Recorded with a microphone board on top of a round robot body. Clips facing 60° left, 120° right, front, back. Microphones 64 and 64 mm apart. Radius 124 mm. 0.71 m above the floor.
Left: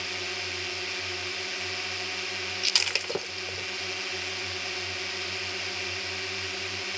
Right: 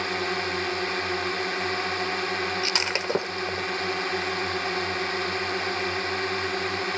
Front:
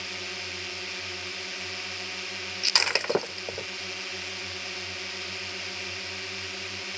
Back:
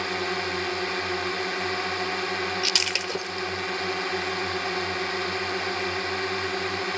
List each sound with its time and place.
0.0 s a drone: 150° right
2.6 s breaking glass: 60° right